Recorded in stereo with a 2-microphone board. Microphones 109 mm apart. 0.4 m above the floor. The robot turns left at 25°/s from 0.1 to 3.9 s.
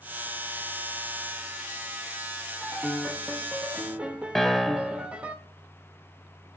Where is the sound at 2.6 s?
10° left, 1.0 m; by 5.3 s 25° right, 1.0 m.